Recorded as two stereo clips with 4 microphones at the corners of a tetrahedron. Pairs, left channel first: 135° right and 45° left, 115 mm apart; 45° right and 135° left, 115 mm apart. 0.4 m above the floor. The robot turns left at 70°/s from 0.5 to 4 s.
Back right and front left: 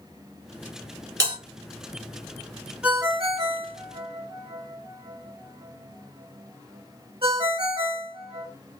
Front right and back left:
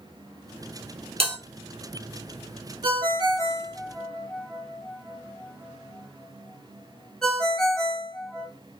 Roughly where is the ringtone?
Behind left.